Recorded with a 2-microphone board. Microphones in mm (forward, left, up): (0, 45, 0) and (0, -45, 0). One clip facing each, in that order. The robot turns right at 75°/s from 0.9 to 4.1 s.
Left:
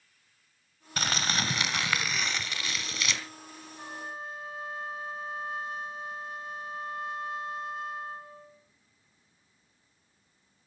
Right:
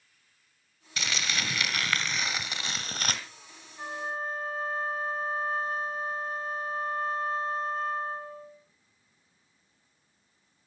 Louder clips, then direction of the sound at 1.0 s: Left 3 dB; 90° left.